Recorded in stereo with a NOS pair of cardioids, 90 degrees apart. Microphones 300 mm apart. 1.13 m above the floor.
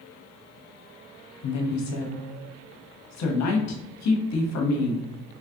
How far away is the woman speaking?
About 1.1 m.